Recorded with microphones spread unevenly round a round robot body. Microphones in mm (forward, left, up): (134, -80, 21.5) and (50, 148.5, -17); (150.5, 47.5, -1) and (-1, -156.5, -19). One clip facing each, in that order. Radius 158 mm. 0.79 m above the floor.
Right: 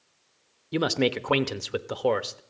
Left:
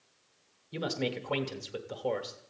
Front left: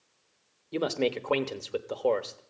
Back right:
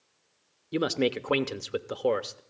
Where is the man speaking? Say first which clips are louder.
Right 9 dB, back right 2 dB; 60° right, 0.9 m.